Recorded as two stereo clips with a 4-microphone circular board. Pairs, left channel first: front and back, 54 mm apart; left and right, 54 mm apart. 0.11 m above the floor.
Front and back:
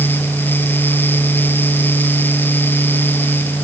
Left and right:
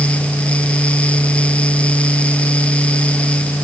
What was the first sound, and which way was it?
Only background noise.